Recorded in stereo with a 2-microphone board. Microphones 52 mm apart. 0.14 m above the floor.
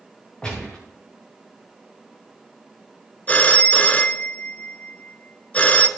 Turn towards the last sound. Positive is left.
turn(degrees=30)  # may be behind; listen again after turning